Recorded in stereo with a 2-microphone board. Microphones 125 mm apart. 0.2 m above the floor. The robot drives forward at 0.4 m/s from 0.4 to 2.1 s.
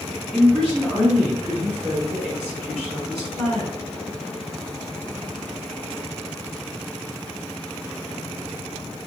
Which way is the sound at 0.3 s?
15° left (ahead or behind).